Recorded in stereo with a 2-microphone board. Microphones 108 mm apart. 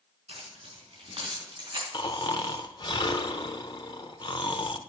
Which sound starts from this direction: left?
Snoring, at 1.9 s.